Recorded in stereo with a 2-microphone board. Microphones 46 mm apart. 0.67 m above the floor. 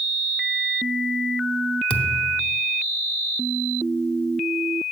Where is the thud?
30° left (ahead or behind), 0.7 m.